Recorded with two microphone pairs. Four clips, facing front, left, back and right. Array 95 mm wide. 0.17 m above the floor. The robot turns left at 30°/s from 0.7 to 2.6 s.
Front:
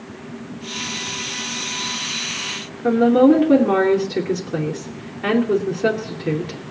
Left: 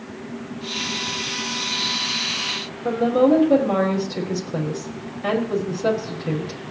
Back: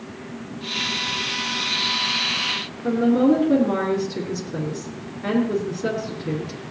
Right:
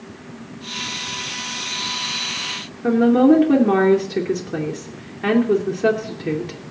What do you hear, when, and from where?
2.8 s a woman speaking: 60° right, 3 m